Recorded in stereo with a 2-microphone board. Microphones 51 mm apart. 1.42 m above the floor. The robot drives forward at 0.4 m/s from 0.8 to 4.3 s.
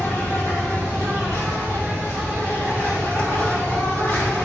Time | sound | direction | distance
0.0 | an insect | 75° left (ahead or behind) | 2 m